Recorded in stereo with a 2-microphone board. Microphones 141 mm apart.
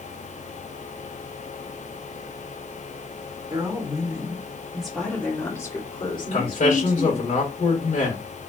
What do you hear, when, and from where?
3.5 s a woman speaking: 30° right (ahead or behind), 2 m; by 7.3 s 55° left (ahead or behind), 2.5 m
6.3 s a man speaking: 60° left (ahead or behind), 1.7 m